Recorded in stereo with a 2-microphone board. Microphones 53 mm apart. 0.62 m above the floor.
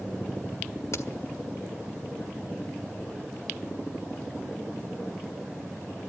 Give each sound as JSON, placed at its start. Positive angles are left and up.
{"t": 0.9, "sound": "a crack", "side_deg": 65, "distance_m": 1.7}